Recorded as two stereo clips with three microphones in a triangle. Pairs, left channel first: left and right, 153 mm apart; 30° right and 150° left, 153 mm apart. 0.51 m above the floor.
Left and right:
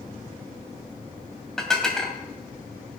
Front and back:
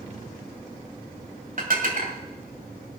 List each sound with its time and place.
1.6 s dishes clattering: 175° left, 2.5 m